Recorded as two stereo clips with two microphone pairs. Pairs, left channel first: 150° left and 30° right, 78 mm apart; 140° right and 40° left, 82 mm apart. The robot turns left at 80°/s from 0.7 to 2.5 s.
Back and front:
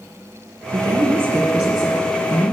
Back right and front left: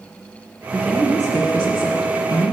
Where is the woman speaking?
30° right, 1.8 m; by 2.5 s 175° right, 1.8 m.